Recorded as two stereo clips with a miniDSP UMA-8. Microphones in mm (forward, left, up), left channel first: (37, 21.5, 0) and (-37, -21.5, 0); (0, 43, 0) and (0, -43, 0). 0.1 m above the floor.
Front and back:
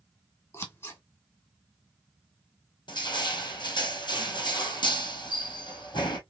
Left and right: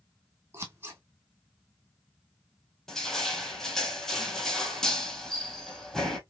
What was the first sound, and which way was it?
Scissors, 35° right.